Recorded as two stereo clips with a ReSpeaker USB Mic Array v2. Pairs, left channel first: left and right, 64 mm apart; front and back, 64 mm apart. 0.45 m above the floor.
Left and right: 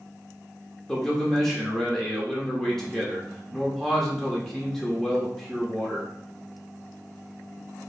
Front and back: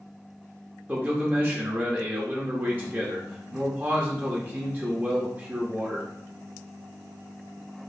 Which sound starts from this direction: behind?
A man speaking, at 0.9 s.